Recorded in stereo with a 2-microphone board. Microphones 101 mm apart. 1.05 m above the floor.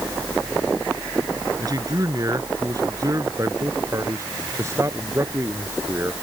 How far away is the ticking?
I don't hear ticking.